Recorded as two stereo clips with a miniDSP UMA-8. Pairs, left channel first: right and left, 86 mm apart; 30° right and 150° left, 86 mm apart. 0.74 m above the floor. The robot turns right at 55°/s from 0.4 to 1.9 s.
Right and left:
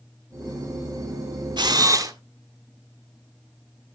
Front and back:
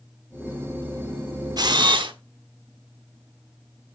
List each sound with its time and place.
1.6 s a camera shutter: 115° left, 1.4 m; by 2.1 s 135° left, 1.4 m